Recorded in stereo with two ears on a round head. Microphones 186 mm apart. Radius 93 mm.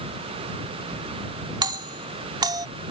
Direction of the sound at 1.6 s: 20° right (ahead or behind).